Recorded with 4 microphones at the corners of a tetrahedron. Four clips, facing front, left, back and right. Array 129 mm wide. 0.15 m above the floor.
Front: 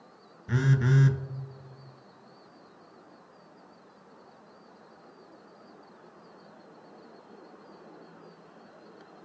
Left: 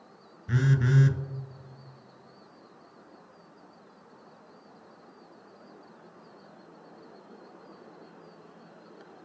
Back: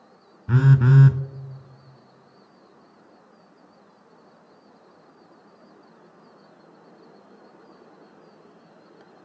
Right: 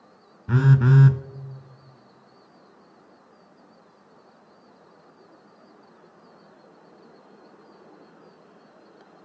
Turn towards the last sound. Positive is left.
turn(degrees=-135)